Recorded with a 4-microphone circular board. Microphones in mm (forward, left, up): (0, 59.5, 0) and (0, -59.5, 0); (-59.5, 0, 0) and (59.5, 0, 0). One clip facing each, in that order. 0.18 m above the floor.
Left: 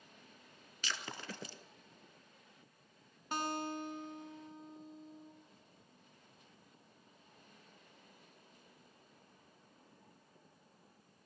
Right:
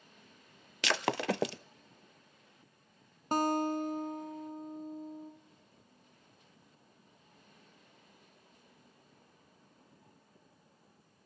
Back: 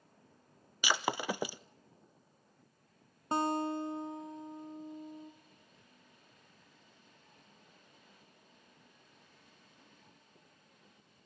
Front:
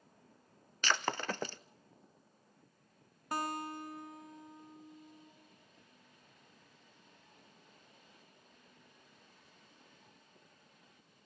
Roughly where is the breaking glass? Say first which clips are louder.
Right 14 dB, back 2 dB; right.